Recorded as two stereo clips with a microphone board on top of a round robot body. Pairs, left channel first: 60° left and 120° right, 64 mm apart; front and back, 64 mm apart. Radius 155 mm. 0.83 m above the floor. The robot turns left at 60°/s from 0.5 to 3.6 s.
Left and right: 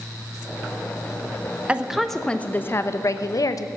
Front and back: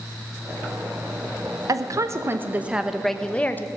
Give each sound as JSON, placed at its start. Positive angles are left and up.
{"t": 1.7, "sound": "a woman speaking", "azimuth_deg": 170, "distance_m": 0.9}